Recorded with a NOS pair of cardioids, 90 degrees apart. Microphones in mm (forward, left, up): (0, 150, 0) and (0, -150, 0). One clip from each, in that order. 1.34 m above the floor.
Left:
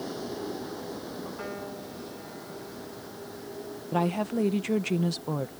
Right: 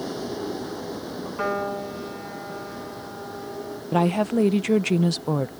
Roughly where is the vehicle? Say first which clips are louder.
Right 5 dB; ahead right.